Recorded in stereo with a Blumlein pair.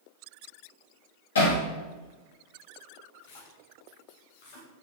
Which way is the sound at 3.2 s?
50° left.